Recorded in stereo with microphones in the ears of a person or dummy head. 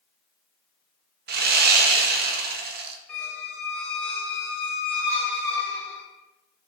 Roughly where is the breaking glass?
I don't hear breaking glass.